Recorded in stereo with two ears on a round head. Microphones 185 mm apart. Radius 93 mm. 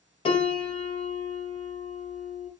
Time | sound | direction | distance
0.2 | a piano | 25° left (ahead or behind) | 0.9 m